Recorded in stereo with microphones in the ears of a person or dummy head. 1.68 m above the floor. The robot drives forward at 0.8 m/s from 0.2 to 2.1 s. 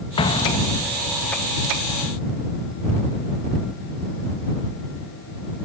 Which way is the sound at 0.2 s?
35° left (ahead or behind).